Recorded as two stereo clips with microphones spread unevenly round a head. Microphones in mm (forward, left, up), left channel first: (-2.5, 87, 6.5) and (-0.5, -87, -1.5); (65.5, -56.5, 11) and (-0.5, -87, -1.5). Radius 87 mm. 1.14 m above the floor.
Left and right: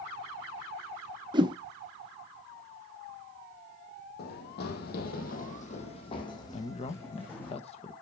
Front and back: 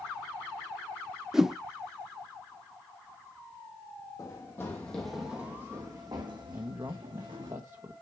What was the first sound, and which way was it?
A whoosh, 55° right.